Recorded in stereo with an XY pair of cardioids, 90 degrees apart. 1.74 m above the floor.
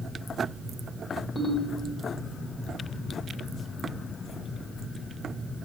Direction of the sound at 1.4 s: 40° left.